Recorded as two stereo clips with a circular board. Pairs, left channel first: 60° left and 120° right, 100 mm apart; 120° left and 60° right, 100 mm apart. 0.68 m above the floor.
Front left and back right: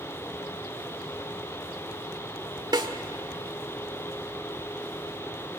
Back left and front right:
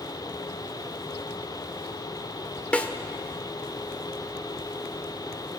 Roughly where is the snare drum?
Behind.